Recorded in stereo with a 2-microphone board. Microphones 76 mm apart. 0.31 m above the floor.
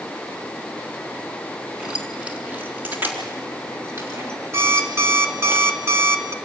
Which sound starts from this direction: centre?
Keys jangling, at 1.8 s.